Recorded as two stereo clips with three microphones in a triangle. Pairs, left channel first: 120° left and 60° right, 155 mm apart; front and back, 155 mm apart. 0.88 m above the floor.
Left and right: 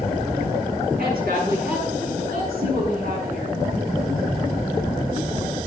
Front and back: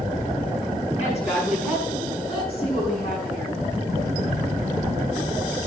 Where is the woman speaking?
45° right, 7 m; by 3.6 s 55° right, 7 m.